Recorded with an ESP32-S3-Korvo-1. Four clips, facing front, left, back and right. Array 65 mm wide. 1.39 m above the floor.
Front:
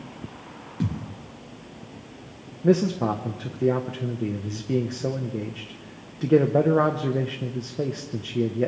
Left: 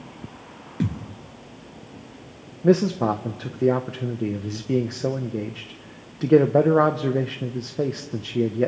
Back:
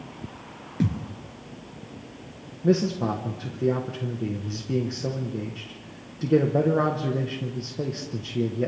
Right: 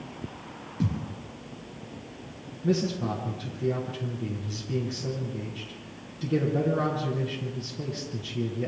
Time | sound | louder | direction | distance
0.8 | a thud | left 3 dB, back 3 dB | 125° left | 2.5 m
2.6 | a man speaking | left 8 dB, front 2 dB | 80° left | 1.3 m